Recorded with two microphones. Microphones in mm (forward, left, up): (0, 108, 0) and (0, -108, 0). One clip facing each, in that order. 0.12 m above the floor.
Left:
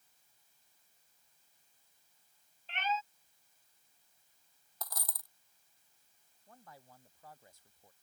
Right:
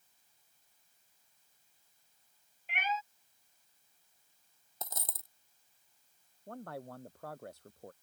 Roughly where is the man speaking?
Right.